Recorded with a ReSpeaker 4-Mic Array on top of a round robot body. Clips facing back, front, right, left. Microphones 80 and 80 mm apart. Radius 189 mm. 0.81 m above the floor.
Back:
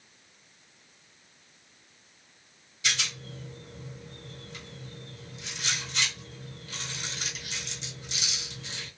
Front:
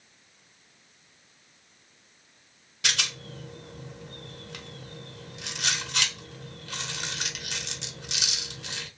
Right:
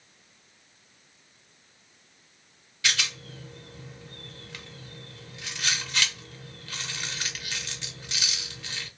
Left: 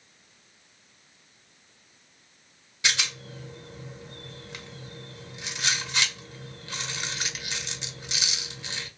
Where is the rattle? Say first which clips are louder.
Front 1 dB, even; 20° left, 0.8 m.